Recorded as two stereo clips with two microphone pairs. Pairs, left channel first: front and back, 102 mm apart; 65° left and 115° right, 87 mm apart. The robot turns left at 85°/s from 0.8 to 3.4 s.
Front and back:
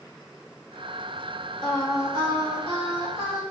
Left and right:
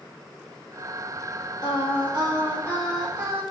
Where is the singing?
85° left, 1.8 m; by 3.4 s 65° right, 1.8 m.